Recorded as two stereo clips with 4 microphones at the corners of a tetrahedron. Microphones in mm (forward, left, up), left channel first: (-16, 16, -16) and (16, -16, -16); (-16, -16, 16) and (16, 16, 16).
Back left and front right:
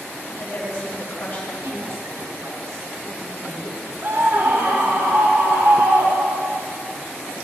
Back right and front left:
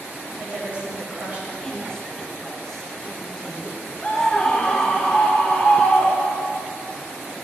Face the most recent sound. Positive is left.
turn(degrees=-45)